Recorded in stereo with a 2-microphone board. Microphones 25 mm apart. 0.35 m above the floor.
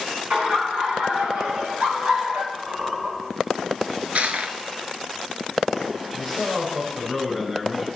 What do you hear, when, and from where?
0.3 s laughter: 50° right (ahead or behind), 4 m; by 2.4 s 60° right (ahead or behind), 2.5 m
2.5 s a squeak: 65° right (ahead or behind), 2.5 m
4.2 s crushing: 60° right (ahead or behind), 0.9 m
6.1 s a man speaking: 20° right (ahead or behind), 4.5 m